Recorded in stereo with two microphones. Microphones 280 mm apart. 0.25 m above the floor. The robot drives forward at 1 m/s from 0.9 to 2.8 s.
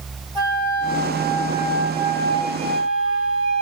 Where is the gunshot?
I don't hear a gunshot.